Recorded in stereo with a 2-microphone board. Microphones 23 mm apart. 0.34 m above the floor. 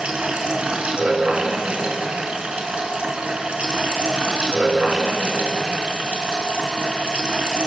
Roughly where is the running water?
Right.